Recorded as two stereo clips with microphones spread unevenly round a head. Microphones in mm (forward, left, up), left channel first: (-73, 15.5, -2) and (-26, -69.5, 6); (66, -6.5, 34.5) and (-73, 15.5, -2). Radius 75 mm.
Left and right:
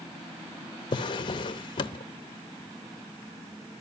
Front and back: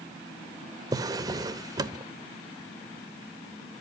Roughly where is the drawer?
Left.